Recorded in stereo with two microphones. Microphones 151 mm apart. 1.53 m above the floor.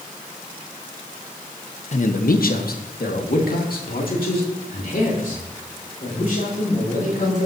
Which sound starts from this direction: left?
A man speaking, at 1.9 s.